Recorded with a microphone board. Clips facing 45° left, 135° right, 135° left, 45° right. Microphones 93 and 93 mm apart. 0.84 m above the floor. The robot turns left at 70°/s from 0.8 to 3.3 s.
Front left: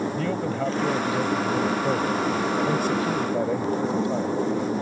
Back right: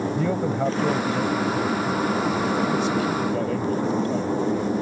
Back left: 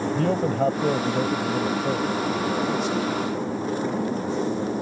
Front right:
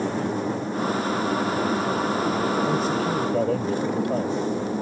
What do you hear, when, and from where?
0.1 s a man speaking: 145° left; by 4.4 s 30° right